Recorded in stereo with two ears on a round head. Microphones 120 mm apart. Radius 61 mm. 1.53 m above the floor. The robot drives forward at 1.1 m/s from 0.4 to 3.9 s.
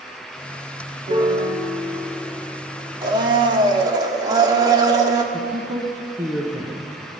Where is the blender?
30° right (ahead or behind), 1.2 m.